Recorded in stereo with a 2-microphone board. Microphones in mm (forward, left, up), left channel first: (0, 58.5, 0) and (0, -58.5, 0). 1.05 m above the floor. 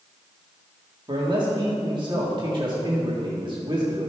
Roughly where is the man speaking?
Right.